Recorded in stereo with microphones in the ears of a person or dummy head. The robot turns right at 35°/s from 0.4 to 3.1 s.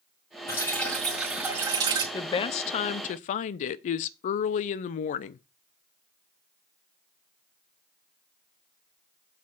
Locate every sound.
0.5 s dripping: 160° left, 2.5 m; by 2.0 s 145° right, 2.5 m
2.1 s a woman speaking: 30° left, 0.5 m; by 5.4 s 65° left, 0.5 m